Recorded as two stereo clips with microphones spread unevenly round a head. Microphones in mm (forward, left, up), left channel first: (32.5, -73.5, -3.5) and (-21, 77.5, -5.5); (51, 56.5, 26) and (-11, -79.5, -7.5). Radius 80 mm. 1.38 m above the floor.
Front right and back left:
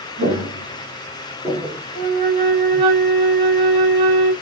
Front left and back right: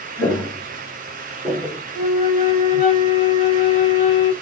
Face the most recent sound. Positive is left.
turn(degrees=95)